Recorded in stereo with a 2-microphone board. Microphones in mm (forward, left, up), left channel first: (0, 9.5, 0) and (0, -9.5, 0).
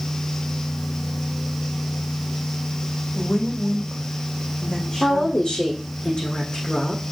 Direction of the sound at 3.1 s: 45° left (ahead or behind).